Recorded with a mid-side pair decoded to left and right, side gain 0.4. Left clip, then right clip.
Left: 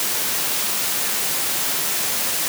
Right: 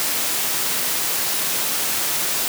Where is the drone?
No drone in this recording.